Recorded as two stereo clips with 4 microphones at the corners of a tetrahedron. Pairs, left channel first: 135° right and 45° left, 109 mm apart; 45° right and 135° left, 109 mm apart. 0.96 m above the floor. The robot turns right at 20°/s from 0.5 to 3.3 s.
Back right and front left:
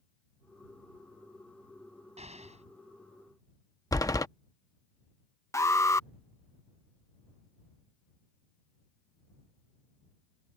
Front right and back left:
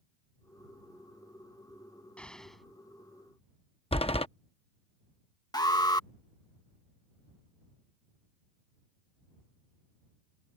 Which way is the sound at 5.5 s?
80° right.